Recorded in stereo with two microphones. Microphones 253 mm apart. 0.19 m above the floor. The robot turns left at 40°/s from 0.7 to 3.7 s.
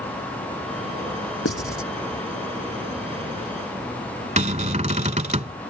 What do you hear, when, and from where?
1.4 s writing: 60° left (ahead or behind); by 1.9 s 55° left (ahead or behind)
4.4 s a cupboard door: 30° right (ahead or behind)